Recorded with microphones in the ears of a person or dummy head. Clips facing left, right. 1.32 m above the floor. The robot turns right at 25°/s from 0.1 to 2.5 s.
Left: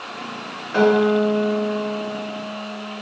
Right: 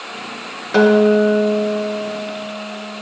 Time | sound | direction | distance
0.7 | a guitar | 65° right | 0.6 m